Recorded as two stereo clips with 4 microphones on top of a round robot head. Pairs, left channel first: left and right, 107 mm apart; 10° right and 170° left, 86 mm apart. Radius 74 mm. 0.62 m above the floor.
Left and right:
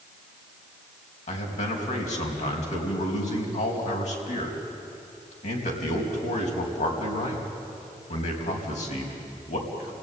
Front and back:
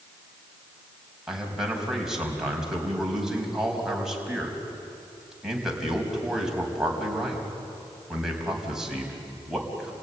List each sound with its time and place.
1.3 s a man speaking: 85° left, 4.5 m